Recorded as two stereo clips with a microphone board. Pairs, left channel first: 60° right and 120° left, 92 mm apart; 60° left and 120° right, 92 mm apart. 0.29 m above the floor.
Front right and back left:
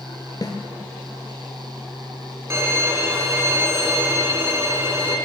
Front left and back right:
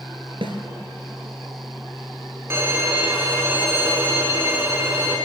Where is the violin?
175° left, 2 m.